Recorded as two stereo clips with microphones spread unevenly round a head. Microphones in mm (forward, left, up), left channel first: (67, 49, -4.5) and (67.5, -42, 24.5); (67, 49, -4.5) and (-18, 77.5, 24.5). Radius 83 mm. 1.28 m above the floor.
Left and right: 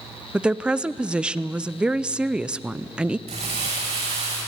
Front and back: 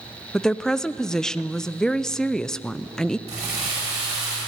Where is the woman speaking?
15° left, 0.5 m.